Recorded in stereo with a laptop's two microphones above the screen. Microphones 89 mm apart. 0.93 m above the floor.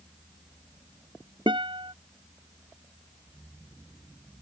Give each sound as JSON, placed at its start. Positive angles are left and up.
{"t": 1.5, "sound": "a guitar", "side_deg": -70}